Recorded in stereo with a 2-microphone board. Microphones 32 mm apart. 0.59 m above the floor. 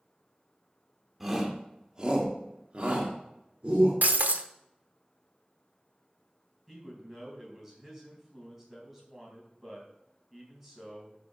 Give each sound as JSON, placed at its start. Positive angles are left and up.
{"t": 1.2, "sound": "a shout", "side_deg": -5, "distance_m": 2.0}
{"t": 4.0, "sound": "breaking glass", "side_deg": -70, "distance_m": 0.8}
{"t": 6.7, "sound": "a man speaking", "side_deg": -15, "distance_m": 3.5}